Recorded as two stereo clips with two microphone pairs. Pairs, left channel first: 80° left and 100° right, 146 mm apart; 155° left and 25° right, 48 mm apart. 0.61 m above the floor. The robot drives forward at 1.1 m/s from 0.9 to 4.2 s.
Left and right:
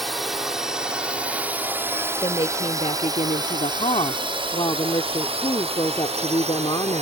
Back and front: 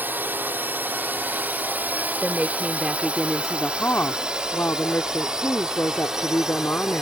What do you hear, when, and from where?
0.0 s a drone: 10° right; by 7.0 s 100° right
2.2 s a woman speaking: 25° left; by 7.0 s 130° left